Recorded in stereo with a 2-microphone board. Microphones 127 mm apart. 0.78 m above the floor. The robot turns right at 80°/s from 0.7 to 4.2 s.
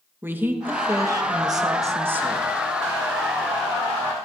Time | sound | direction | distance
0.2 | a woman speaking | 15° right (ahead or behind) | 0.9 m